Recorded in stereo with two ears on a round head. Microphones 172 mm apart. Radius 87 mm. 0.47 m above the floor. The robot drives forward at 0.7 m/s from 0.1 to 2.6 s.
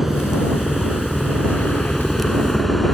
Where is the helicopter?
Centre (ahead or behind).